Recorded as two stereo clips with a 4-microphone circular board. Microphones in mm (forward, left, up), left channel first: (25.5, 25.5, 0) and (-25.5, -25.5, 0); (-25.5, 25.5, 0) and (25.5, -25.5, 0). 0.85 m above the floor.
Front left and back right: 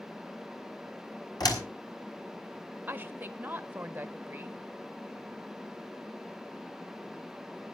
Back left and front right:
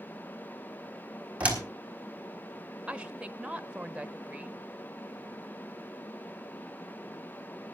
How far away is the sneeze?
I don't hear a sneeze.